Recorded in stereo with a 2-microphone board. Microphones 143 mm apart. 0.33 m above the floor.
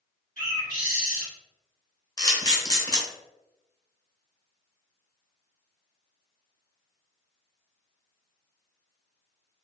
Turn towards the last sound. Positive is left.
turn(degrees=30)  # may be behind; listen again after turning